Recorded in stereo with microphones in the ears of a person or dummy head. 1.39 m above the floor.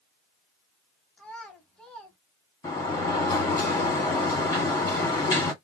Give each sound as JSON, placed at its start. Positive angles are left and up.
{"t": 1.2, "sound": "a child speaking", "side_deg": 5, "distance_m": 1.0}
{"t": 2.6, "sound": "a sliding door", "side_deg": 20, "distance_m": 1.3}